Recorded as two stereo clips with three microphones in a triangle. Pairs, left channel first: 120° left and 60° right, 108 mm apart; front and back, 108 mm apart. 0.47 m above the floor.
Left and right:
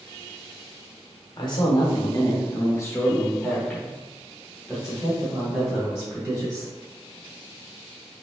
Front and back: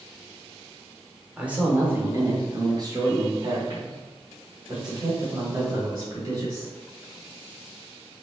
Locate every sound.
1.4 s a man speaking: 105° left, 1.3 m; by 6.7 s 135° right, 3 m